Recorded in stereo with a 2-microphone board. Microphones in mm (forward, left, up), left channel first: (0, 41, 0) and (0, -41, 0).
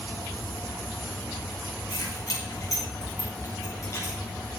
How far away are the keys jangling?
About 7 m.